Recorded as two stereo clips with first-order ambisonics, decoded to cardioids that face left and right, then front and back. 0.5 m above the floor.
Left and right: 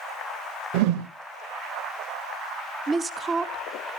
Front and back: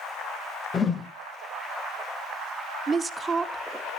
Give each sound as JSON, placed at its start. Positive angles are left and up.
{"t": 0.7, "sound": "a whoosh", "azimuth_deg": -75, "distance_m": 0.5}
{"t": 2.9, "sound": "a woman speaking", "azimuth_deg": -135, "distance_m": 0.8}